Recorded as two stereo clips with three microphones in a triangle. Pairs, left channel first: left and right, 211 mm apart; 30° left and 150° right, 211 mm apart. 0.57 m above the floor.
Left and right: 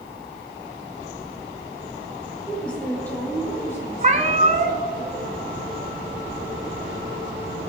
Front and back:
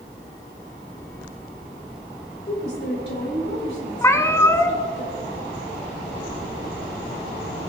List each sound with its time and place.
2.5 s a woman speaking: 5° left, 3 m; by 5.0 s 15° left, 6.5 m
4.0 s a cat meowing: 45° right, 0.7 m